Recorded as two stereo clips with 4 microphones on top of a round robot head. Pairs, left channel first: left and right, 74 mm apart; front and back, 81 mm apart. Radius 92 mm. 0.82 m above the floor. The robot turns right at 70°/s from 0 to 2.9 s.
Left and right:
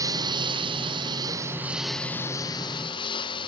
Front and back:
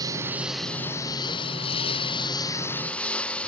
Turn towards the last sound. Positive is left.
turn(degrees=75)